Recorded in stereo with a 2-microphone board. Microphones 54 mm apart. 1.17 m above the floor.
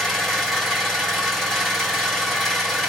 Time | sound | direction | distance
0.0 | an engine running | 10° left (ahead or behind) | 2.5 m